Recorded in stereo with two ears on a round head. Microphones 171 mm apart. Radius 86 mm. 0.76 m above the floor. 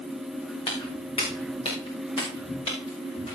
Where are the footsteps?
25° left (ahead or behind), 5.5 m.